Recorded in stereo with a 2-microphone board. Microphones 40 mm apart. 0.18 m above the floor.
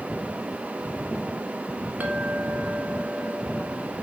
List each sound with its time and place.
2.0 s a clink: 50° right (ahead or behind), 1.5 m